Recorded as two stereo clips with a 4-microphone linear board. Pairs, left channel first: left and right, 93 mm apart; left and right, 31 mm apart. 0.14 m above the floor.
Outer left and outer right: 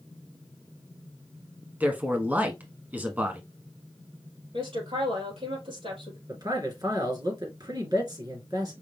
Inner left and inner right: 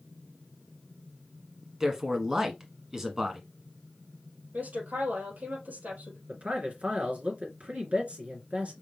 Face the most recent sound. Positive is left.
turn(degrees=-45)  # may be behind; listen again after turning